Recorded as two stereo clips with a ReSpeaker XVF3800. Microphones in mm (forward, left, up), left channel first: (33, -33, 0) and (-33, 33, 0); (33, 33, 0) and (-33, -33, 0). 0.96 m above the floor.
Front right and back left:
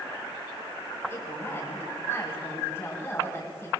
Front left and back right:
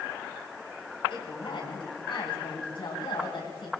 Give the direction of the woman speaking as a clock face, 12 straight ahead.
11 o'clock.